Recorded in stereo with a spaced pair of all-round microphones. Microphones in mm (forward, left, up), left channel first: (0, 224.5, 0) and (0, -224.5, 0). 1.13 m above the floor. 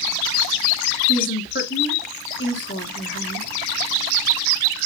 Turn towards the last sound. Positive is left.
turn(degrees=25)  # may be behind; listen again after turning